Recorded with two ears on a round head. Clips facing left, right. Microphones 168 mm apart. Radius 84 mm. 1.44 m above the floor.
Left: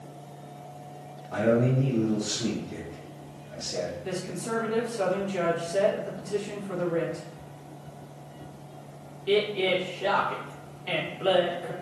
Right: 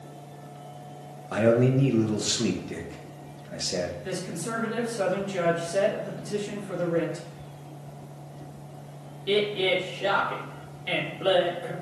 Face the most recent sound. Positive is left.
turn(degrees=-15)  # may be behind; listen again after turning